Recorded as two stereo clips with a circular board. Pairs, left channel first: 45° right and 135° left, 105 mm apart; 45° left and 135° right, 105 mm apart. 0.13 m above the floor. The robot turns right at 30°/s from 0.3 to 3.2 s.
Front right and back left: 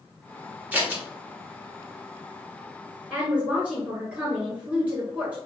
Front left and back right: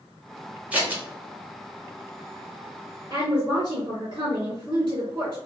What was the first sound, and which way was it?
Scissors, 175° left.